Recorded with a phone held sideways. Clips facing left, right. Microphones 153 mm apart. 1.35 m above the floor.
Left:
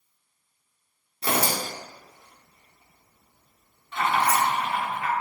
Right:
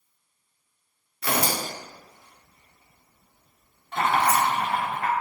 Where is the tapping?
No tapping in this recording.